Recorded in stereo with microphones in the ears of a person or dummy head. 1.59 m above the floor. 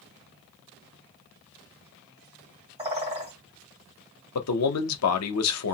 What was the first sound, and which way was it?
A bird, 20° right (ahead or behind).